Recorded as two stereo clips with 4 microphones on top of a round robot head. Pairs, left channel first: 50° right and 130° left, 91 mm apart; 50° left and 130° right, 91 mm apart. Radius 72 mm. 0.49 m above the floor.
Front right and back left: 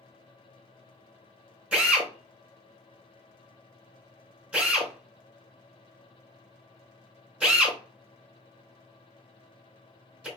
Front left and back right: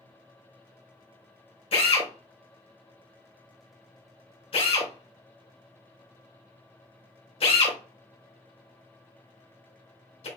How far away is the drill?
About 3 m.